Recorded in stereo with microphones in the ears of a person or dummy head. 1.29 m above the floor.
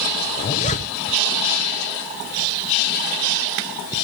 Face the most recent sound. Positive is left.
turn(degrees=35)  # may be behind; listen again after turning